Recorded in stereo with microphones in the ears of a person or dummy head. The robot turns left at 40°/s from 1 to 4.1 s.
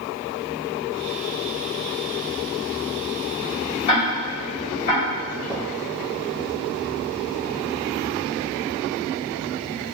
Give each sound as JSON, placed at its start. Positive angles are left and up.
{"t": 3.9, "sound": "ticking", "side_deg": 25, "distance_m": 1.2}
{"t": 5.4, "sound": "footsteps", "side_deg": 20, "distance_m": 1.7}